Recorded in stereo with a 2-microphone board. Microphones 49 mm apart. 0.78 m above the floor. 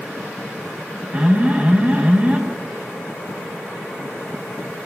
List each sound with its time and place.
1.1 s an alarm: 30° right (ahead or behind), 6 m